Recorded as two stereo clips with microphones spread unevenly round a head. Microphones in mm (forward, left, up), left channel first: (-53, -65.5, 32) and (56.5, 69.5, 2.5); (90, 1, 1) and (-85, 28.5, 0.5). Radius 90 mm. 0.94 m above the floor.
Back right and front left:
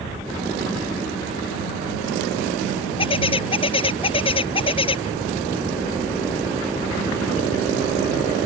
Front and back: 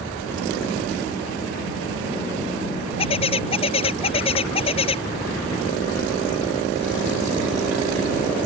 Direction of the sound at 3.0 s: 70° right.